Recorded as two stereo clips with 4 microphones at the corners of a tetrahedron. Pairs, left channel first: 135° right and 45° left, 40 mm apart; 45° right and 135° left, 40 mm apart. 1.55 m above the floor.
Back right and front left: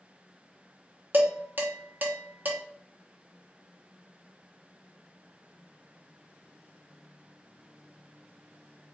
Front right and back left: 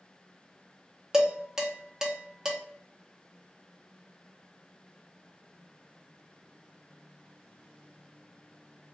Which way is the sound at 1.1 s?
65° left.